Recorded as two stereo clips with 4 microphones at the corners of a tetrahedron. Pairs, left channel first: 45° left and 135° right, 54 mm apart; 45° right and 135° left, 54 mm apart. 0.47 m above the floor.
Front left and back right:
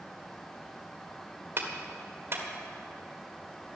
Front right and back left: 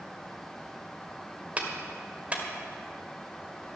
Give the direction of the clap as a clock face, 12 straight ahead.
6 o'clock.